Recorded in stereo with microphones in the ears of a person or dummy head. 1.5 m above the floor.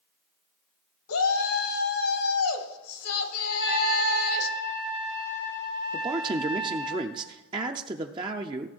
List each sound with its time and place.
1.1 s a shout: 80° left, 1.9 m
3.5 s a trumpet: 30° right (ahead or behind), 6 m
5.9 s a man speaking: 20° right (ahead or behind), 0.5 m